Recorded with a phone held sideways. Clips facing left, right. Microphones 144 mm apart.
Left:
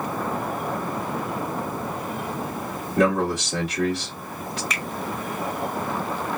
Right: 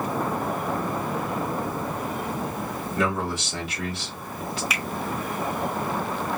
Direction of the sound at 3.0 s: 45° left (ahead or behind).